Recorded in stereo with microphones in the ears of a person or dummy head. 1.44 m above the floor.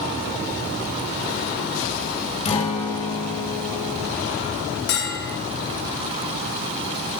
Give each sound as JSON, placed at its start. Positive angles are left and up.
{"t": 2.5, "sound": "a guitar", "side_deg": 35, "distance_m": 1.3}
{"t": 4.9, "sound": "a bell", "side_deg": 65, "distance_m": 1.2}